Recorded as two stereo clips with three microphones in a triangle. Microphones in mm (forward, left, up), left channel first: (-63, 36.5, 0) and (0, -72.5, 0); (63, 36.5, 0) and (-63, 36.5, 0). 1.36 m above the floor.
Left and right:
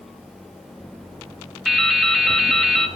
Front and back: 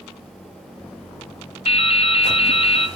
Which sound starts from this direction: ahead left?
Dripping, at 1.6 s.